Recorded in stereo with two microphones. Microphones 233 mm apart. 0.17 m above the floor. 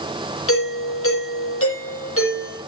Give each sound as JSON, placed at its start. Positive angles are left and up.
{"t": 0.5, "sound": "a doorbell", "side_deg": 70, "distance_m": 7.5}